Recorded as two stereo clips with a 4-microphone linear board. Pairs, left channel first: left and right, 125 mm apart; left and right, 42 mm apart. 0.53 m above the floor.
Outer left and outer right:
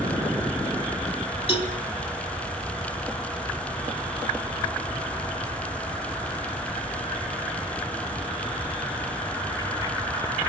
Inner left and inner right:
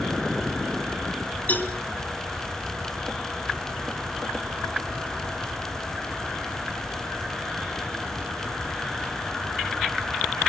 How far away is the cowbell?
About 3.5 m.